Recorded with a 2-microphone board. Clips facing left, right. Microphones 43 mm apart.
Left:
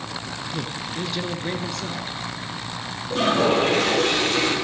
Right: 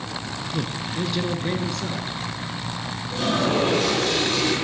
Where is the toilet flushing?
85° left, 6.5 m.